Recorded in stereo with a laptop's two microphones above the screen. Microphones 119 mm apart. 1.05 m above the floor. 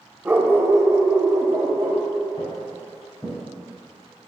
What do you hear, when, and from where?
0.2 s a dog barking: 15° right (ahead or behind), 0.9 m; by 2.0 s 40° right (ahead or behind), 1.1 m
2.4 s footsteps: 40° left (ahead or behind), 2.5 m; by 3.4 s 20° left (ahead or behind), 2.5 m